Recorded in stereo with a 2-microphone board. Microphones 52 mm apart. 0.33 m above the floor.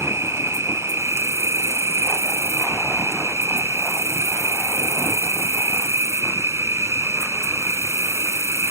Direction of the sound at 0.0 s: 70° right (ahead or behind).